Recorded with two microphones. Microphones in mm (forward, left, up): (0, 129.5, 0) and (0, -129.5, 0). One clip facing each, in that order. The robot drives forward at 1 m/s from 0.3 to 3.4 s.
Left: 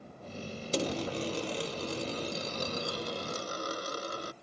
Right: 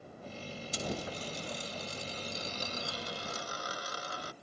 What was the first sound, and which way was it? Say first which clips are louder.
A dropped coin: left 7 dB; 75° left (ahead or behind).